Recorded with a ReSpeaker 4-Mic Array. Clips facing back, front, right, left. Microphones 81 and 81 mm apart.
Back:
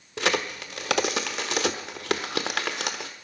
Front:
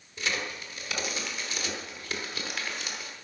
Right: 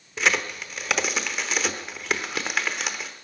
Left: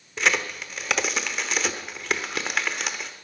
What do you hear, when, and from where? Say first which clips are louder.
0.2 s a crack: back 7 dB, even; straight behind, 1.0 m